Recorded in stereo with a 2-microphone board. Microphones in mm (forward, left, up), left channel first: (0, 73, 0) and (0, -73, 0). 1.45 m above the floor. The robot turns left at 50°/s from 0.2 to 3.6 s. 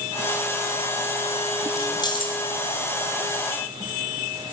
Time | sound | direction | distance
1.8 | keys jangling | 20° left (ahead or behind) | 0.5 m